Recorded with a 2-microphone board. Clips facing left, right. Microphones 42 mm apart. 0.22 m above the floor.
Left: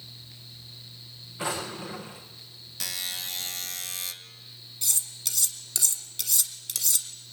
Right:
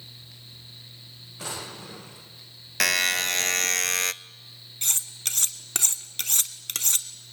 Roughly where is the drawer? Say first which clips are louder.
Left 5 dB; left.